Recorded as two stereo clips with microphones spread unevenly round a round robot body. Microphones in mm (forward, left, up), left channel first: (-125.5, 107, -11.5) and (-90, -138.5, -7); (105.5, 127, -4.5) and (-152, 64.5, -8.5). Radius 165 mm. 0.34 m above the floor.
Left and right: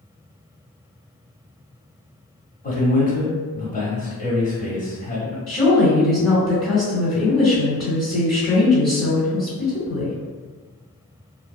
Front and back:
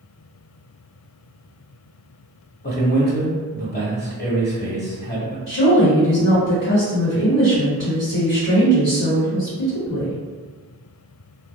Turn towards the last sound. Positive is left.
turn(degrees=30)